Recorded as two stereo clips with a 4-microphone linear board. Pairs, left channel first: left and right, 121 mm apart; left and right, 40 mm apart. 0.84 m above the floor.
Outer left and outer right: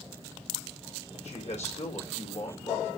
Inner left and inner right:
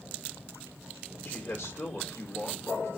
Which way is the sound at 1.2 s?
70° left (ahead or behind).